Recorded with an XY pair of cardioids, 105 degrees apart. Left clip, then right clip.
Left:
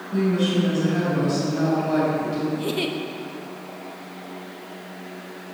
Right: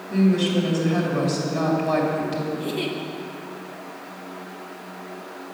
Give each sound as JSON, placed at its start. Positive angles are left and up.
{"t": 0.1, "sound": "a woman speaking", "azimuth_deg": -70, "distance_m": 2.0}
{"t": 2.5, "sound": "a giggle", "azimuth_deg": 25, "distance_m": 0.7}